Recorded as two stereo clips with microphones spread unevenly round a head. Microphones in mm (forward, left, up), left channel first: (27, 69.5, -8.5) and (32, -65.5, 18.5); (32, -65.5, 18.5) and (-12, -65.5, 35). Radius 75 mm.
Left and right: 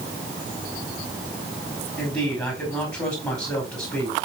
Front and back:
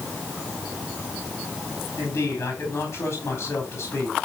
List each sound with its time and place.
2.0 s a man speaking: 25° left, 4.5 m